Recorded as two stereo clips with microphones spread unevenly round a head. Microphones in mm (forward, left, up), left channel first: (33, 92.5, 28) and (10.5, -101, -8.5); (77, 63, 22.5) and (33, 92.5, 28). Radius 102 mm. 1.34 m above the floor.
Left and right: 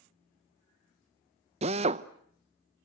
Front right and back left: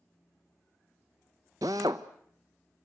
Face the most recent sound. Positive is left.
turn(degrees=-160)